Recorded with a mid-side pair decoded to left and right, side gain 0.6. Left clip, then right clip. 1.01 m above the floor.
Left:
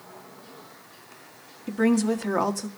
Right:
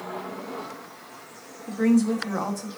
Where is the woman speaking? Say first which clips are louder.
Even; 30° left, 1.3 m.